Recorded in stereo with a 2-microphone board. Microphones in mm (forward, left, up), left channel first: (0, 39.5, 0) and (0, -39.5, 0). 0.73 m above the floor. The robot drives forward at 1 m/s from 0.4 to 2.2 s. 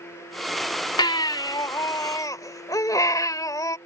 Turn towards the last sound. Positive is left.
turn(degrees=50)  # may be behind; listen again after turning